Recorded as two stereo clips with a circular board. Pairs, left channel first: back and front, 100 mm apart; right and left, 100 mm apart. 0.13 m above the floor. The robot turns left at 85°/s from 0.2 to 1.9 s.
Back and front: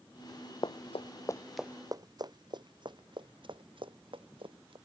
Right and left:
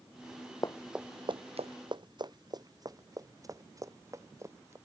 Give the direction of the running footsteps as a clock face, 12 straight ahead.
5 o'clock.